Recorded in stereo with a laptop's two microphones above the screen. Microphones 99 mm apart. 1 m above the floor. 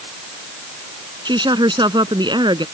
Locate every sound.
1.2 s a woman speaking: 50° right (ahead or behind)